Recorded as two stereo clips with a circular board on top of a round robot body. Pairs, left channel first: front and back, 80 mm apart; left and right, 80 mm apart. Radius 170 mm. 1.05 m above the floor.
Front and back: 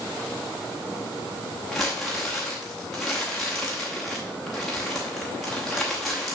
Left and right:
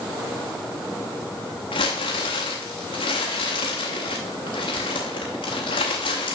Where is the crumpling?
85° left, 0.6 m.